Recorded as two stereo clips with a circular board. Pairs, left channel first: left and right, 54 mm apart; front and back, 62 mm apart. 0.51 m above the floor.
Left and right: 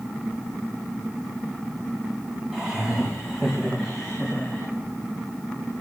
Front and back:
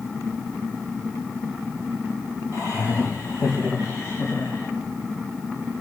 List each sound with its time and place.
2.5 s laughter: 15° right, 3 m; by 4.7 s 5° left, 5 m